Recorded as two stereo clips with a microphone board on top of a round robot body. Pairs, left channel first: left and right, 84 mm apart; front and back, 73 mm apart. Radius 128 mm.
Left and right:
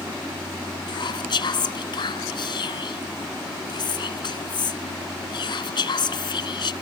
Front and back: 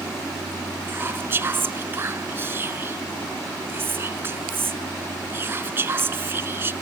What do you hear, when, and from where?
0.9 s whispering: 120° left